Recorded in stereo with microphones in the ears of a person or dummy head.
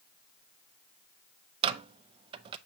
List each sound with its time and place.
1.6 s a microwave: 35° right (ahead or behind), 0.5 m